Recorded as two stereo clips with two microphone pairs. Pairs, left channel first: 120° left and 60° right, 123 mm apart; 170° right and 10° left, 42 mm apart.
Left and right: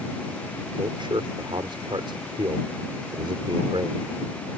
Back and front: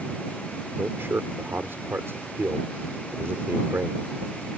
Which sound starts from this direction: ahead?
A man speaking, at 0.8 s.